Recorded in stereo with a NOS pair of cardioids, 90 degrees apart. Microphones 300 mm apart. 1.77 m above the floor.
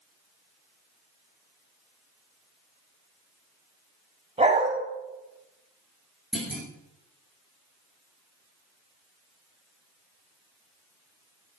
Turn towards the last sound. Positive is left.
turn(degrees=0)